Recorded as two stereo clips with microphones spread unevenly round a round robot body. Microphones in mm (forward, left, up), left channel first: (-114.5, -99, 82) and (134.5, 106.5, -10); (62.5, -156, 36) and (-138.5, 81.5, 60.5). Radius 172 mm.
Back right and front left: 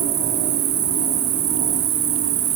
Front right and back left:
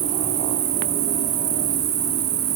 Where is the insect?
100° left, 2 m.